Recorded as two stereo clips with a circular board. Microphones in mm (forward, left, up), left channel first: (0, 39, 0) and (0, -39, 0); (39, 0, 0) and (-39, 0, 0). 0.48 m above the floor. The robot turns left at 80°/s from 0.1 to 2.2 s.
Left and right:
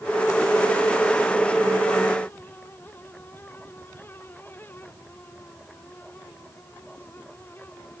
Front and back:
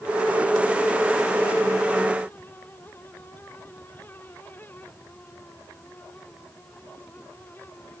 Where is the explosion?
No explosion in this recording.